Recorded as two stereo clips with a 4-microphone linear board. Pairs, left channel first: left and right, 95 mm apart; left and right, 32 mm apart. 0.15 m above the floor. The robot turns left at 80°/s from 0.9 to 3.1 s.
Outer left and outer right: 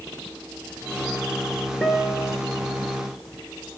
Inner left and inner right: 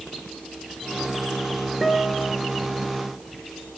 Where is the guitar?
15° left, 4.5 m; by 2.4 s 25° right, 4.5 m.